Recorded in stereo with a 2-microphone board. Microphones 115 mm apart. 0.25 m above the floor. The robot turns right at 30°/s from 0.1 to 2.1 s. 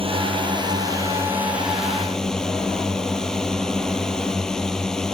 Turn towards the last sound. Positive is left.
turn(degrees=5)